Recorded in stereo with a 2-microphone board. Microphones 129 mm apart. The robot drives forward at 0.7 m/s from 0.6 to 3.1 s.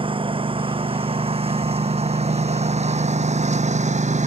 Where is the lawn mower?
40° right (ahead or behind); by 4.3 s 65° right (ahead or behind).